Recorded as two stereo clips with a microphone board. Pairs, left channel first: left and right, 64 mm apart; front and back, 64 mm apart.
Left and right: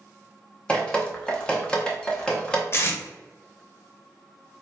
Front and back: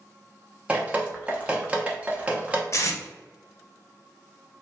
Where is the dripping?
140° left, 0.9 m.